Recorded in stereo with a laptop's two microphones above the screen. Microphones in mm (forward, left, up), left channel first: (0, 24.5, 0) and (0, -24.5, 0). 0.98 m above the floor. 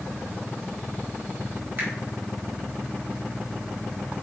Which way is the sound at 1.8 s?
40° right (ahead or behind).